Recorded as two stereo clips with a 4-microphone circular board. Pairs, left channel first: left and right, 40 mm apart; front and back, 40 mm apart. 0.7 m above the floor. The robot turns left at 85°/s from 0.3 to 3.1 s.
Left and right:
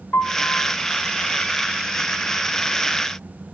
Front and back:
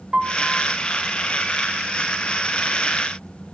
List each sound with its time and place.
0.1 s a piano: 110° left, 2.5 m; by 0.8 s 70° left, 2.5 m